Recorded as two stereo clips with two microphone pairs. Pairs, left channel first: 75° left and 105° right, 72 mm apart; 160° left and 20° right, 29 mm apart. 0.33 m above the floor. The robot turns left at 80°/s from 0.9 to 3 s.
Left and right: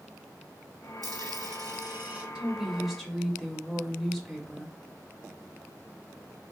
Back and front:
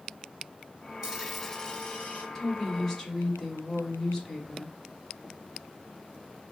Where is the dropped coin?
85° right, 1.4 m; by 2.2 s 175° left, 1.4 m.